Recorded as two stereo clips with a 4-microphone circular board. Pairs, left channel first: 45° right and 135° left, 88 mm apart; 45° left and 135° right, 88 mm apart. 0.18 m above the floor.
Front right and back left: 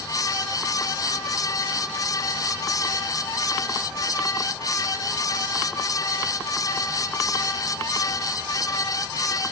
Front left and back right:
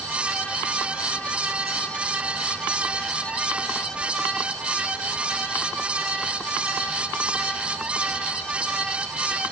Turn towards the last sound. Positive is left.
No sound to turn to.